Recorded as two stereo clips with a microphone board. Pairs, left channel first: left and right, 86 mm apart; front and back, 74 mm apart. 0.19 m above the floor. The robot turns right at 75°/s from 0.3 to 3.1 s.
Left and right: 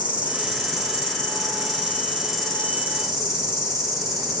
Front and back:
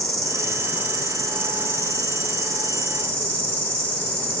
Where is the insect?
160° right, 2.5 m; by 4.4 s 50° left, 2.5 m.